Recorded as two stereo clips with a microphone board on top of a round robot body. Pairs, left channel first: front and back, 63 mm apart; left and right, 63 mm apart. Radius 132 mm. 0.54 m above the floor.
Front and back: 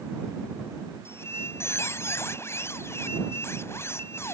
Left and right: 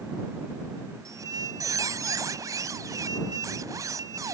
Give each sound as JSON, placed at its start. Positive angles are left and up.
{"t": 1.1, "sound": "a squeak", "azimuth_deg": -50}